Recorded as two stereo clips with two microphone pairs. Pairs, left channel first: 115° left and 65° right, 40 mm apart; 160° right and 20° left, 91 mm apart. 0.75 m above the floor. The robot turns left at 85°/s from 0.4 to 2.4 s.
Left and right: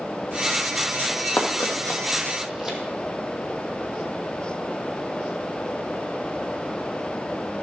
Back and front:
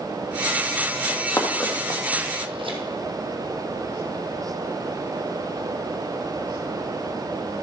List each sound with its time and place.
1.1 s running footsteps: 155° left, 2.5 m; by 2.8 s 15° left, 2.0 m